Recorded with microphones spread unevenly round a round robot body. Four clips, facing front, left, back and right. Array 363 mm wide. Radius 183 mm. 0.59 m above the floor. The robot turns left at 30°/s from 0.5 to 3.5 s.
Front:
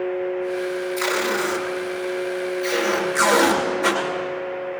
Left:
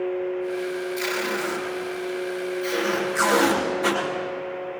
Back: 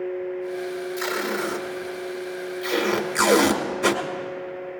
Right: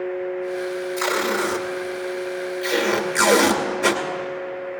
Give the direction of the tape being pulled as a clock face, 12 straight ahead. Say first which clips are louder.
Right 4 dB, front 3 dB; 2 o'clock.